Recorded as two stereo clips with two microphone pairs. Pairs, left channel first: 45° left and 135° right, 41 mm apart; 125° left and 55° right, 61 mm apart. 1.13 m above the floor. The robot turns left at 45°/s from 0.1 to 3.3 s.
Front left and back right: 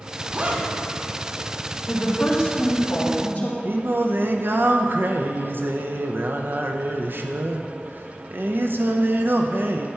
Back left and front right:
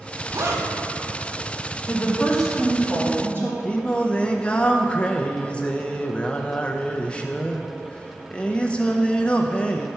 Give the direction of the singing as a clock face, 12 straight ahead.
5 o'clock.